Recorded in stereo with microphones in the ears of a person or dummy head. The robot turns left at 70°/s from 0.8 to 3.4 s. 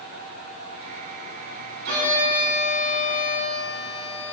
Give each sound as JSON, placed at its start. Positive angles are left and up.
{"t": 1.9, "sound": "a violin", "azimuth_deg": -100, "distance_m": 0.7}